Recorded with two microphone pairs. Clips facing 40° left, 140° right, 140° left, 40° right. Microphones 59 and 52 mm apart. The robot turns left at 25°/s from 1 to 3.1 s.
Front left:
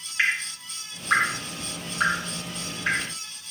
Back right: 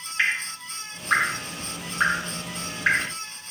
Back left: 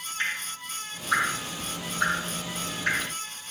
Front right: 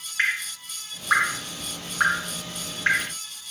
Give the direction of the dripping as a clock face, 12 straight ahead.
2 o'clock.